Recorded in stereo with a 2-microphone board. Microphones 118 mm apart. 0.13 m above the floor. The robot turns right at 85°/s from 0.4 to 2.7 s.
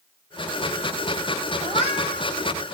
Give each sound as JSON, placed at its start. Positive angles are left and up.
{"t": 1.6, "sound": "a cat meowing", "azimuth_deg": 115, "distance_m": 1.8}